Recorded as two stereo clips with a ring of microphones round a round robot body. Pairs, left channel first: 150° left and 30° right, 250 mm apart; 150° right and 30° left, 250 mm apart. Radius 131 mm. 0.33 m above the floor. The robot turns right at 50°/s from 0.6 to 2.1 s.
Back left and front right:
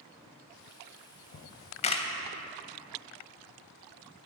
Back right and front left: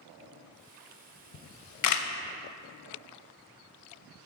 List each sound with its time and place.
1.3 s a camera shutter: 170° right, 0.5 m; by 2.1 s 135° right, 0.5 m